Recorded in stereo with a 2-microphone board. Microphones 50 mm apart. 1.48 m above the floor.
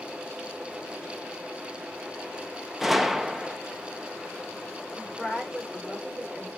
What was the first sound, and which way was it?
A gunshot, 5° right (ahead or behind).